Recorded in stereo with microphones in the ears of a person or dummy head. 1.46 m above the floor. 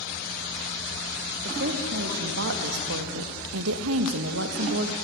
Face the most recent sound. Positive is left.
turn(degrees=-55)  # may be behind; listen again after turning